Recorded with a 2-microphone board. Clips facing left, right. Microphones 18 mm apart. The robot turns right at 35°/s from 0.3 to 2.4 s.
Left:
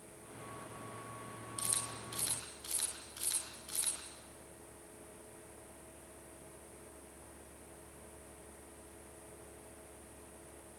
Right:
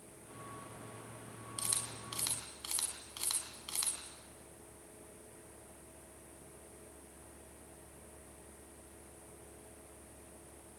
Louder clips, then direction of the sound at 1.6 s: Even; 25° right (ahead or behind).